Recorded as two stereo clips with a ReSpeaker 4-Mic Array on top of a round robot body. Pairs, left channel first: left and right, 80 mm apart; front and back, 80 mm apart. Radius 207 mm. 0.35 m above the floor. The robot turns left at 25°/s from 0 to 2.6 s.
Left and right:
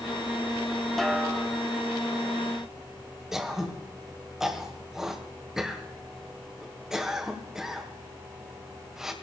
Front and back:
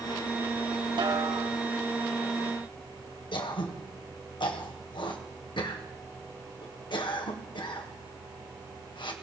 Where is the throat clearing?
5° right, 1.9 m.